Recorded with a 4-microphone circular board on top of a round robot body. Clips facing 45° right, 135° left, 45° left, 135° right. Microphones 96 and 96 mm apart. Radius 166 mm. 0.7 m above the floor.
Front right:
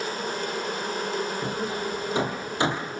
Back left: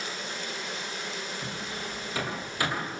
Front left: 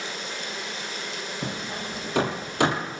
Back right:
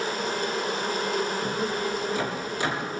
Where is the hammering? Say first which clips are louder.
Front right 8 dB, back right 6 dB; 20° left, 6.5 m.